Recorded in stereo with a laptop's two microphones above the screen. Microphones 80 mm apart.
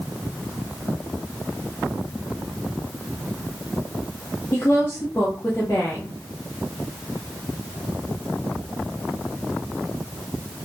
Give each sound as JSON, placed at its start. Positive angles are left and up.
{"t": 4.5, "sound": "a woman speaking", "side_deg": 30, "distance_m": 0.7}